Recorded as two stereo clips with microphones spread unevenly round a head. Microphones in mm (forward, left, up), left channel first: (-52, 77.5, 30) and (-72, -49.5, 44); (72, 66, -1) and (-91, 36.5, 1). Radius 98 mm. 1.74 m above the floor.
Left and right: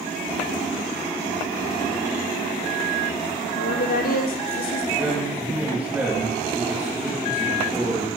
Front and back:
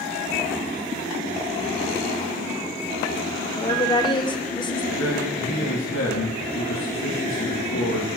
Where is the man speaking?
15° right, 4 m.